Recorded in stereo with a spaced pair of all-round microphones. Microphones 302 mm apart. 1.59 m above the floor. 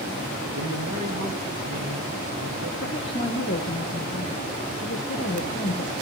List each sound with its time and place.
0.5 s a man speaking: 80° right, 2.5 m; by 2.7 s 55° right (ahead or behind), 3 m
2.8 s a woman speaking: 40° left (ahead or behind), 1.2 m